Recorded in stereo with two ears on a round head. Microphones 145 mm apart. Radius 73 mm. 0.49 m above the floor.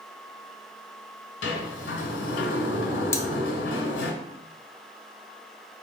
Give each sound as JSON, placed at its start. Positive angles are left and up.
{"t": 1.4, "sound": "a sliding door", "side_deg": 75, "distance_m": 1.2}
{"t": 3.1, "sound": "cutlery clinking", "side_deg": 15, "distance_m": 0.5}